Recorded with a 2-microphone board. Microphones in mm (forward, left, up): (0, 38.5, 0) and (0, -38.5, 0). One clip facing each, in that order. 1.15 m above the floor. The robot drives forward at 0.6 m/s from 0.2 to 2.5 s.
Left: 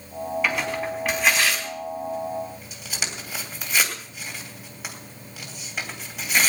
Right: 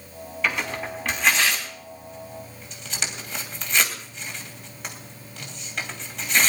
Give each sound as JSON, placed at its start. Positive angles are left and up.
{"t": 0.4, "sound": "tearing paper", "side_deg": 5, "distance_m": 4.0}